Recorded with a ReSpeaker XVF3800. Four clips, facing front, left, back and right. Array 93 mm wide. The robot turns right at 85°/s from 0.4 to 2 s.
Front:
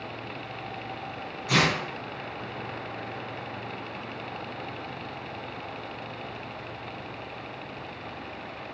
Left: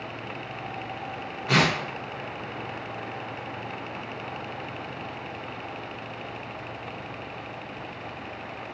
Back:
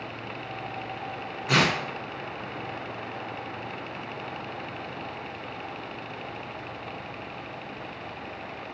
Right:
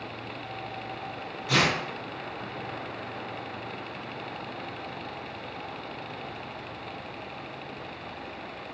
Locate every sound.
1.5 s tearing paper: 125° left, 1.0 m; by 1.8 s 150° left, 1.0 m